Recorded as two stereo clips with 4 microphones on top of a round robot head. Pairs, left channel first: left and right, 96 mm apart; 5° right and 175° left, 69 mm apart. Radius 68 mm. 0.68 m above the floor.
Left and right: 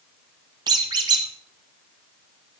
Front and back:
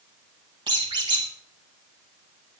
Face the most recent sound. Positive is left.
turn(degrees=-135)